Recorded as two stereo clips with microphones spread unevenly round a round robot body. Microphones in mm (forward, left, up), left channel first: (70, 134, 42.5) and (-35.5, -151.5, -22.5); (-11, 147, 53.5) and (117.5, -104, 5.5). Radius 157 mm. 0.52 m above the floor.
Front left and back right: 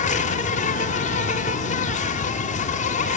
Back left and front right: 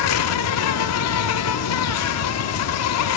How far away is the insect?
About 0.8 m.